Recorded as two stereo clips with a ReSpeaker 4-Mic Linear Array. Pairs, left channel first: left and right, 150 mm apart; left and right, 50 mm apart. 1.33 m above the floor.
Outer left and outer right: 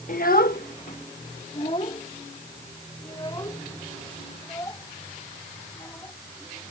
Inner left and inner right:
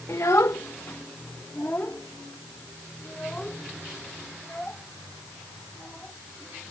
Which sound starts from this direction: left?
A child speaking, at 0.1 s.